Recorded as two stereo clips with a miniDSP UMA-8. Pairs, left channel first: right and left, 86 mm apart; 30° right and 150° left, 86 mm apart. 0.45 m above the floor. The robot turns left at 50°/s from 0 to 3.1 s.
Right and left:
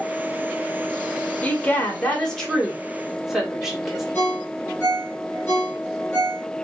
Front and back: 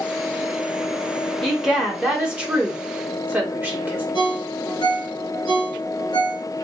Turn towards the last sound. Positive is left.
turn(degrees=-25)